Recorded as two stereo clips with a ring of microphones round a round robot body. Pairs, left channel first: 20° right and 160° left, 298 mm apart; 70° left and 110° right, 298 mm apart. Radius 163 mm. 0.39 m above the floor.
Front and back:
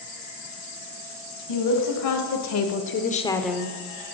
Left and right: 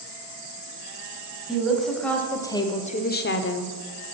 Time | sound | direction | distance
1.5 | a woman speaking | 25° right | 2.5 m